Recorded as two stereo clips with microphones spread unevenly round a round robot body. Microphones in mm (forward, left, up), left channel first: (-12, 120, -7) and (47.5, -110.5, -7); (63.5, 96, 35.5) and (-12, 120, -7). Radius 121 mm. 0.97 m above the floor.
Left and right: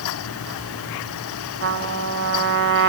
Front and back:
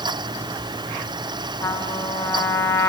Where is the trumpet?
45° right, 1.7 m.